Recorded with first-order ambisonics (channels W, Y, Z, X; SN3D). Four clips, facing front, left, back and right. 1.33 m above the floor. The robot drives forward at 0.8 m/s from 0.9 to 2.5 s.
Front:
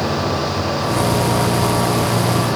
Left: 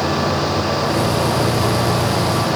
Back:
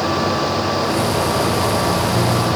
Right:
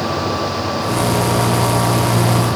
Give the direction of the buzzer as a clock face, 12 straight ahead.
No buzzer in this recording.